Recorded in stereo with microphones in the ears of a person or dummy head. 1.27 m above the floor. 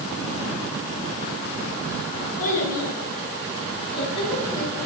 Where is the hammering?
I don't hear hammering.